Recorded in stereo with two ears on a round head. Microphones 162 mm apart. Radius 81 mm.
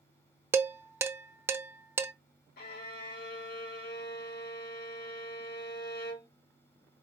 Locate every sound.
0.5 s dishes clattering: 15° right (ahead or behind), 0.6 m
2.6 s a violin: 60° left (ahead or behind), 1.7 m